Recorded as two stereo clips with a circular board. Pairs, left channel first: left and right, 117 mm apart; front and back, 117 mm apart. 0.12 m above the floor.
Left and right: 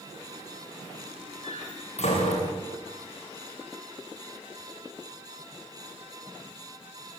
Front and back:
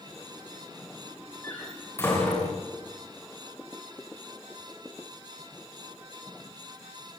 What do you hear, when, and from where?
1.4 s a door slam: 70° left, 9.5 m